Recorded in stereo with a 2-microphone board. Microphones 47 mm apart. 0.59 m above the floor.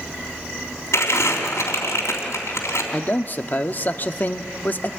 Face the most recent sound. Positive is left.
turn(degrees=40)  # may be behind; listen again after turning